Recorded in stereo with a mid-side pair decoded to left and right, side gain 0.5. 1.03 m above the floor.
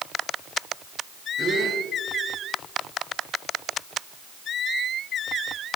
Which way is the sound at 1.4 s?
20° right.